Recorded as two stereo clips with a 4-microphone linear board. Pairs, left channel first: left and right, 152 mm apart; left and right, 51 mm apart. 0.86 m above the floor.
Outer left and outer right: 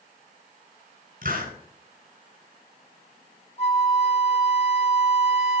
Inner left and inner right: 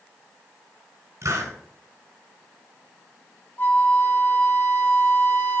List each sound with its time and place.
1.2 s a hiss: 75° right (ahead or behind), 4 m
3.6 s a flute: 45° left (ahead or behind), 0.9 m